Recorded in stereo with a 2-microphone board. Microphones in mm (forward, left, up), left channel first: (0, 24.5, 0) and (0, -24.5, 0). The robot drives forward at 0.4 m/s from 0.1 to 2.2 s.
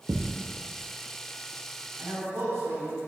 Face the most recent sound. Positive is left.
turn(degrees=-75)  # may be behind; listen again after turning